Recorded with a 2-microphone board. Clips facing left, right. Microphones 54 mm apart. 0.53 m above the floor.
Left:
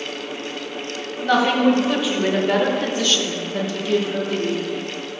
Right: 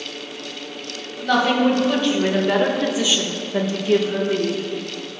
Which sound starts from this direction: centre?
A woman speaking, at 1.2 s.